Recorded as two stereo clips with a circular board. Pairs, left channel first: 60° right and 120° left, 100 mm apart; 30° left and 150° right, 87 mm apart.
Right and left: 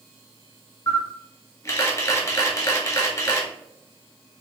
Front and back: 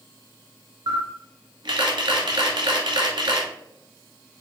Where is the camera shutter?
120° right, 0.9 m.